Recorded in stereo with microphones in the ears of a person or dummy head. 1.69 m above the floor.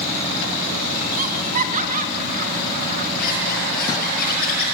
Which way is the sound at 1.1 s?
40° right (ahead or behind).